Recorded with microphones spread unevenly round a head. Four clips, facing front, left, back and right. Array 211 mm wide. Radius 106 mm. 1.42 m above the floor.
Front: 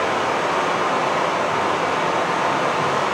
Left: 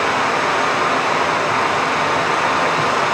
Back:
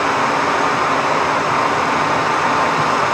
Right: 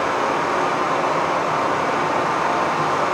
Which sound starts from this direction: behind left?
Running water, at 0.0 s.